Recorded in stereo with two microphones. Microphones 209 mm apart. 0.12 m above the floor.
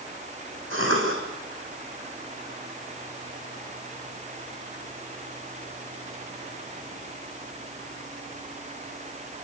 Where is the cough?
65° right (ahead or behind), 7 m.